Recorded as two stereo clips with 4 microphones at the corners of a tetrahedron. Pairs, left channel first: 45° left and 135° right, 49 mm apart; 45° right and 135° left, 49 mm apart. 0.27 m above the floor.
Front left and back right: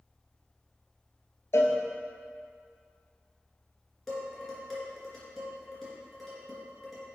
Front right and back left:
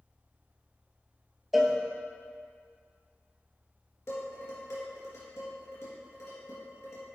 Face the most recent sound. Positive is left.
turn(degrees=-40)